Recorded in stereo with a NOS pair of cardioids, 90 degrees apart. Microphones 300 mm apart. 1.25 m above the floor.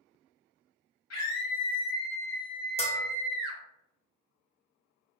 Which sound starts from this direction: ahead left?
A scream, at 1.1 s.